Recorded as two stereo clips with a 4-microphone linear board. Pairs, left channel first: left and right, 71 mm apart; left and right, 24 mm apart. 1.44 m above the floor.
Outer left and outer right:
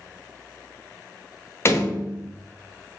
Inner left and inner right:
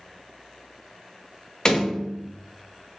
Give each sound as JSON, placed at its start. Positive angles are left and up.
{"t": 1.6, "sound": "a door slam", "side_deg": 35, "distance_m": 0.8}